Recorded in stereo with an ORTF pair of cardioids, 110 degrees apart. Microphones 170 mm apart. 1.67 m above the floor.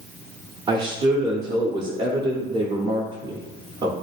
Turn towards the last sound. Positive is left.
turn(degrees=-25)